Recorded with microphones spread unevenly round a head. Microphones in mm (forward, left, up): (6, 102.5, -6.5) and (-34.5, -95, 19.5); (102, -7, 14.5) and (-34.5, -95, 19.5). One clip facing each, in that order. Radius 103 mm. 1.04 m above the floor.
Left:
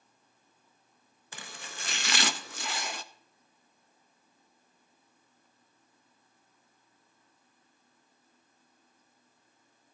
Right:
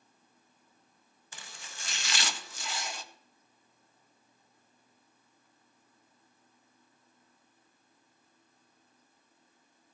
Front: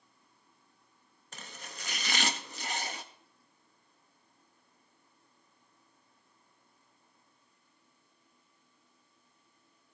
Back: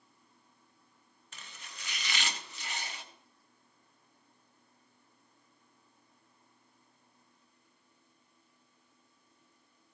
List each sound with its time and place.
1.3 s chopping: 80° left, 0.5 m